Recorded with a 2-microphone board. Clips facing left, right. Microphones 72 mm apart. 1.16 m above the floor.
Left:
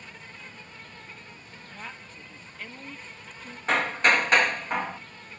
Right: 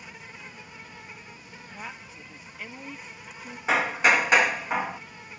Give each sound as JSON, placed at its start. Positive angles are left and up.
{"t": 0.0, "sound": "an insect", "side_deg": -10}
{"t": 1.7, "sound": "a woman speaking", "side_deg": -10}
{"t": 3.7, "sound": "hammering", "side_deg": -10}